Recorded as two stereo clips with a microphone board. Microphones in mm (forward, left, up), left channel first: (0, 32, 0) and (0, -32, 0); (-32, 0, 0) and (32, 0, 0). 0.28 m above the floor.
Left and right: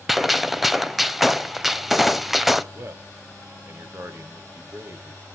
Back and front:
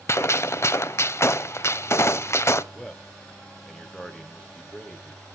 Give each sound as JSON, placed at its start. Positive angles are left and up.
{"t": 0.1, "sound": "a gunshot", "azimuth_deg": 180, "distance_m": 0.7}
{"t": 2.7, "sound": "a man speaking", "azimuth_deg": -105, "distance_m": 1.5}